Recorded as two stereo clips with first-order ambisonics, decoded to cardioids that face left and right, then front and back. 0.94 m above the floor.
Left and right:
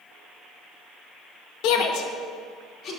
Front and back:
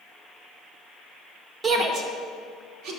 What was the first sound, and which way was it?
A shout, 115° left.